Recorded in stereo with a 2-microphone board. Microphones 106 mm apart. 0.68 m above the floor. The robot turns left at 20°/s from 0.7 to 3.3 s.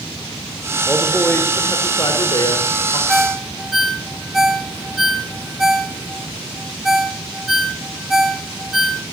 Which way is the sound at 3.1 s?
Centre (ahead or behind).